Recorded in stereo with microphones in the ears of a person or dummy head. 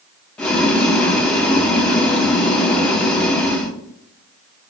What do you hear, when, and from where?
0.4 s boiling: 10° left (ahead or behind), 0.6 m